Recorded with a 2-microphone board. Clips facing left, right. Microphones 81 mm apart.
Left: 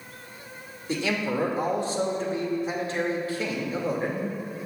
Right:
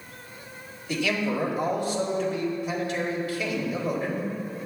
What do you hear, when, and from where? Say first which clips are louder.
0.9 s a man speaking: even; 35° left (ahead or behind), 2.5 m